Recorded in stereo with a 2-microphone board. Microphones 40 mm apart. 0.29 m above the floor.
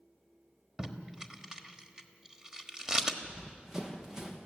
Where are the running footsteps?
15° right (ahead or behind), 2.5 m.